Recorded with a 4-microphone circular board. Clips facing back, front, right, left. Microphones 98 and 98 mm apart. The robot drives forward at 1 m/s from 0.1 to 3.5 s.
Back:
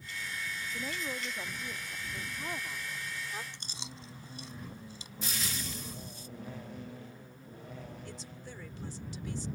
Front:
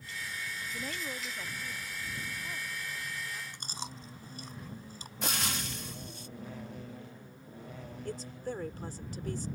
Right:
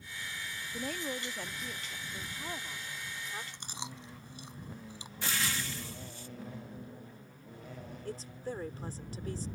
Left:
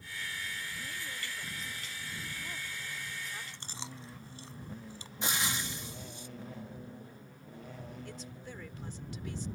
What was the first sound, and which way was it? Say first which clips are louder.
A woman speaking: back 2 dB, right 6 dB; 90° right.